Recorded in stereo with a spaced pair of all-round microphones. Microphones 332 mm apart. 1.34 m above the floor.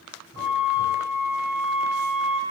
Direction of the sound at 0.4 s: 65° left (ahead or behind).